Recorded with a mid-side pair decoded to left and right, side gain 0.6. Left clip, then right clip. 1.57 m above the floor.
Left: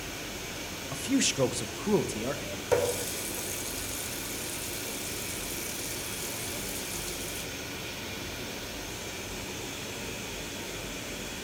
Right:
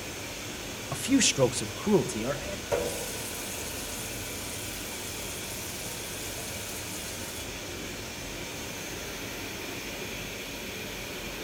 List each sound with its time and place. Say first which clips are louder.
0.9 s a man speaking: right 3 dB; 25° right, 0.9 m; by 2.6 s 5° right, 2 m
2.7 s a running tap: left 3 dB; 35° left, 4 m